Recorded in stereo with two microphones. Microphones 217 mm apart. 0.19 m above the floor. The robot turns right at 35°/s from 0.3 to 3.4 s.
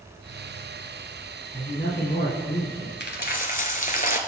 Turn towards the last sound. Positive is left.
turn(degrees=40)  # may be behind; listen again after turning